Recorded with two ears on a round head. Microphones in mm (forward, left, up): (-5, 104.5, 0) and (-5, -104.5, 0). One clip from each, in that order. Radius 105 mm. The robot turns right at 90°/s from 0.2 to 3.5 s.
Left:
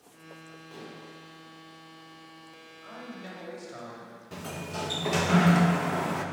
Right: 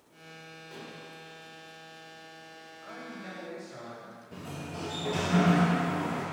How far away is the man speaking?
About 2.5 m.